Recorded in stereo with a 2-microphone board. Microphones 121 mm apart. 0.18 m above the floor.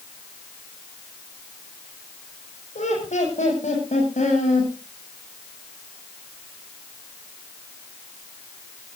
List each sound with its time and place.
2.8 s laughter: 75° left (ahead or behind), 7.5 m; by 4.7 s 85° left, 10 m